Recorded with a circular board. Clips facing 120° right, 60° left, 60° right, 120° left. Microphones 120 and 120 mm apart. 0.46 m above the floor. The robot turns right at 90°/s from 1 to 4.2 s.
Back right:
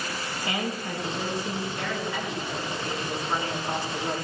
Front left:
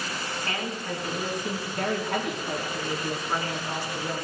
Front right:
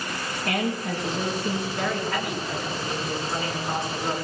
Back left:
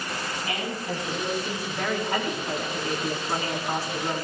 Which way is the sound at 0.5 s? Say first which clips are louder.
Back right 4 dB, front right 7 dB; 45° right.